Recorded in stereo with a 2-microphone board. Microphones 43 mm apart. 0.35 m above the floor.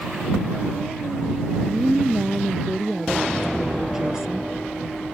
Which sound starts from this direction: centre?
A woman speaking, at 1.6 s.